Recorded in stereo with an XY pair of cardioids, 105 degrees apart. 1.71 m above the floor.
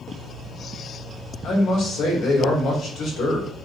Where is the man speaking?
70° left, 1.2 m.